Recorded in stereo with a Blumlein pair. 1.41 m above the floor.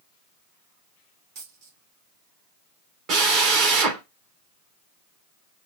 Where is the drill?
35° right, 1.6 m.